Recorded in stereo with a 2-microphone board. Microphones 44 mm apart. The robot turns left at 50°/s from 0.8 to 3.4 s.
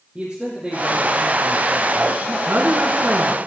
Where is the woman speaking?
90° right, 2 m; by 3.5 s 140° right, 2 m.